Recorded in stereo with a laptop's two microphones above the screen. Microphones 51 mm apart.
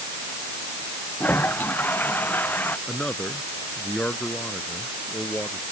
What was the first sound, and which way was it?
A toilet flushing, 35° left (ahead or behind).